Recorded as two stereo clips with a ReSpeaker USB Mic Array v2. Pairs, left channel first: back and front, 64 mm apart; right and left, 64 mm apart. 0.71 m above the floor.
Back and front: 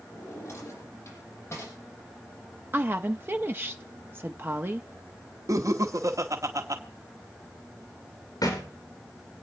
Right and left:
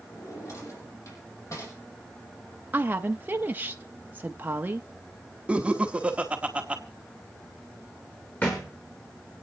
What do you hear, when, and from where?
0.1 s a drawer: 130° right, 7.5 m
2.7 s a woman speaking: 40° left, 0.8 m
5.5 s laughter: 20° left, 1.5 m
8.4 s a thud: 155° right, 5 m